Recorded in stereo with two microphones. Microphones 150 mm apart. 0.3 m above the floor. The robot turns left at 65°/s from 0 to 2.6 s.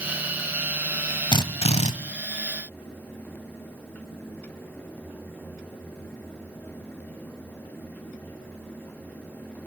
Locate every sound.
1.3 s a drill: 140° left, 1.1 m; by 1.9 s 100° left, 1.1 m